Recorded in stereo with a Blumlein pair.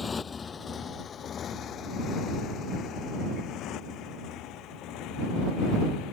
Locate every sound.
0.0 s a motorcycle: 15° left; by 6.1 s 40° left